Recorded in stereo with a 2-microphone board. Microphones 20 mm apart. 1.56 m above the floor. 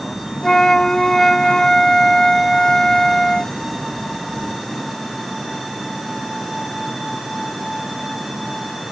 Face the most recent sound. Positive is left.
turn(degrees=35)  # may be behind; listen again after turning